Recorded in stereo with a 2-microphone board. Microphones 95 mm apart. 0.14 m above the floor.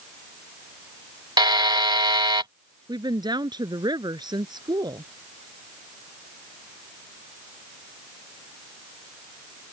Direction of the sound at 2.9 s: 50° right (ahead or behind).